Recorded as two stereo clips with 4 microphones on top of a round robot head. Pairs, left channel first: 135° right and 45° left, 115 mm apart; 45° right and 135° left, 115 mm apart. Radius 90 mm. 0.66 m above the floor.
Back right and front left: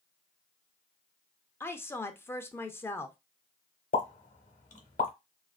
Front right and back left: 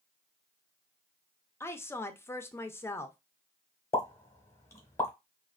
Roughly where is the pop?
Right.